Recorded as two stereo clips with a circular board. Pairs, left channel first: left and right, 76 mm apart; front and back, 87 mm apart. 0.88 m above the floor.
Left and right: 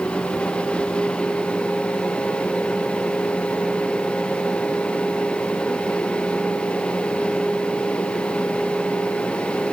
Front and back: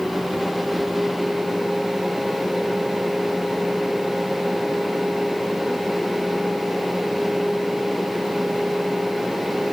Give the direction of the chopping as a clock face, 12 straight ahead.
No chopping in this recording.